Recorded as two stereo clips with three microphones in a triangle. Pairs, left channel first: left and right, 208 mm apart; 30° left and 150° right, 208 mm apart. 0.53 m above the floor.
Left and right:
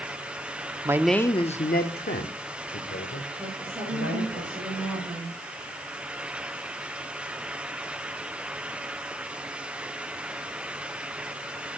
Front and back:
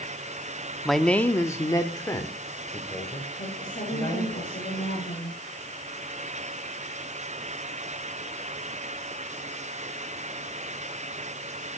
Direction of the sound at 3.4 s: 20° right.